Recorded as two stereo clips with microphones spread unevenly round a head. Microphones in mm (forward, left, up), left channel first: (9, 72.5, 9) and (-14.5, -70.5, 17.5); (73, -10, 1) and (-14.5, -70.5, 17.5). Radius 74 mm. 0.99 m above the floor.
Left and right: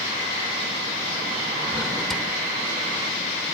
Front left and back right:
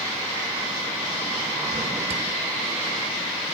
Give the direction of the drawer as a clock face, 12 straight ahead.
6 o'clock.